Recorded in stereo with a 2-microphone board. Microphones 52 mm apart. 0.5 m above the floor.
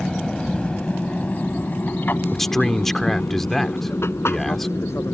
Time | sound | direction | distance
0.0 | an aircraft | 10° left (ahead or behind) | ?
2.3 | a man speaking | 5° left (ahead or behind) | ?